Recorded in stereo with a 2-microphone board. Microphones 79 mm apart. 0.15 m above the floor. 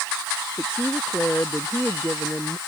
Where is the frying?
No frying in this recording.